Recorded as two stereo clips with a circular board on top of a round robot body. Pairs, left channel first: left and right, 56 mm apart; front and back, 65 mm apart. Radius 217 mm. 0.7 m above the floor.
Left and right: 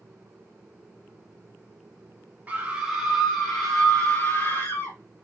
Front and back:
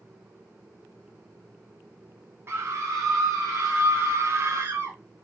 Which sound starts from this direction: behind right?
A scream, at 2.5 s.